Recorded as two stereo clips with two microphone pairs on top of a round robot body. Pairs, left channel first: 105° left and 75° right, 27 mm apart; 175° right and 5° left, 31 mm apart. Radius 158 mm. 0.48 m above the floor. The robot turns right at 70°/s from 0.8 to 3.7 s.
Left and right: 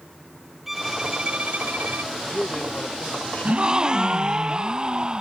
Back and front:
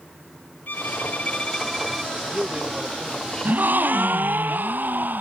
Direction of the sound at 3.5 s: 35° right.